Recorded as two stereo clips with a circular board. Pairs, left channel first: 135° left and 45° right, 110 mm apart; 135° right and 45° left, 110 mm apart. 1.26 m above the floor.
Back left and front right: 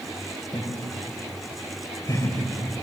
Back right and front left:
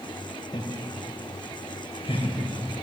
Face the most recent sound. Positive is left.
turn(degrees=-165)